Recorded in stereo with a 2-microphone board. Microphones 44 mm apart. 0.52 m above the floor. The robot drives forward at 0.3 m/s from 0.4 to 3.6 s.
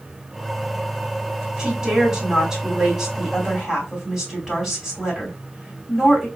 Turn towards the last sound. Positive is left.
turn(degrees=-10)  # may be behind; listen again after turning